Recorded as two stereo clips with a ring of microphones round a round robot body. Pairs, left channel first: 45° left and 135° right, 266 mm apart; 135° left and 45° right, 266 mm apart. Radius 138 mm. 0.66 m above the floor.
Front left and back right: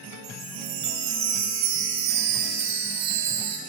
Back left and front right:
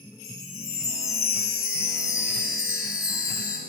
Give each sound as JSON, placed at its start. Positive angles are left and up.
{"t": 0.2, "sound": "a chime", "azimuth_deg": -145, "distance_m": 1.2}